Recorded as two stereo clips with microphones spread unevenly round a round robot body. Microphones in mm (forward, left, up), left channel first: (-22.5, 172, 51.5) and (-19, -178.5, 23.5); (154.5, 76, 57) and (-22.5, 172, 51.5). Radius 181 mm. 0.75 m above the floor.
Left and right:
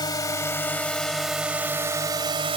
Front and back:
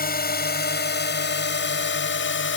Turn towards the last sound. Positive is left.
turn(degrees=-15)